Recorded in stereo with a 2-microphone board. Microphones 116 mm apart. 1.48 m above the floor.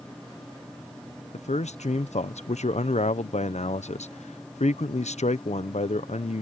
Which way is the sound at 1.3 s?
80° left.